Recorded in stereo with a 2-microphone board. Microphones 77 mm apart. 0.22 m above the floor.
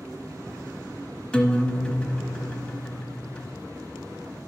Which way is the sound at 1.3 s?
15° left (ahead or behind).